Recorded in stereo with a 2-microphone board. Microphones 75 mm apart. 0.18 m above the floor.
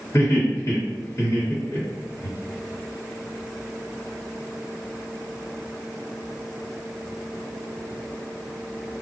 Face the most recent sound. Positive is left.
turn(degrees=40)  # may be behind; listen again after turning